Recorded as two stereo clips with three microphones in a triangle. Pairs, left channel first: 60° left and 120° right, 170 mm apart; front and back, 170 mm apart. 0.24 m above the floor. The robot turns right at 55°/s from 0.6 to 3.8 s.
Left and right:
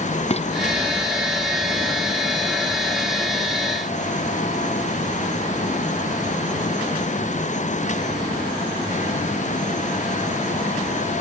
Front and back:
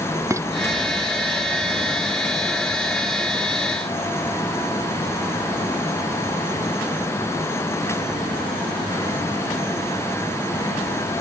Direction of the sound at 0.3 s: 110° left.